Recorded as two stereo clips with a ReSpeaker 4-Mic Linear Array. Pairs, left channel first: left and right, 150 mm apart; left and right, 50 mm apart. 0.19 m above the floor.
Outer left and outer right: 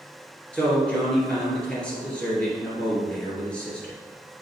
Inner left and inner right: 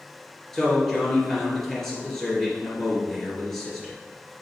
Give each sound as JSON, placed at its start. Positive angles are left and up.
{"t": 0.5, "sound": "a man speaking", "side_deg": 10, "distance_m": 2.5}